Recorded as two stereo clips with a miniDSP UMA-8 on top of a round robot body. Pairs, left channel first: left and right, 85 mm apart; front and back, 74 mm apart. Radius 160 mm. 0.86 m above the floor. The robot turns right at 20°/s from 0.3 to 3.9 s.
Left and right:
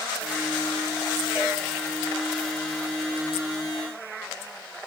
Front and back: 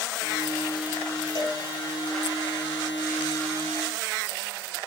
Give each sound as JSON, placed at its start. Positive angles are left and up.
{"t": 1.4, "sound": "a cowbell", "azimuth_deg": -15, "distance_m": 9.5}